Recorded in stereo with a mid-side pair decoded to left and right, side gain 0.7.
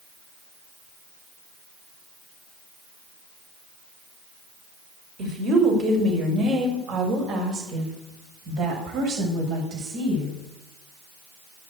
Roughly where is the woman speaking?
Ahead right.